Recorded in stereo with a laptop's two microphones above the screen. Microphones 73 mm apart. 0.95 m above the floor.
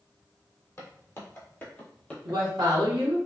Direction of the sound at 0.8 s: 40° left (ahead or behind).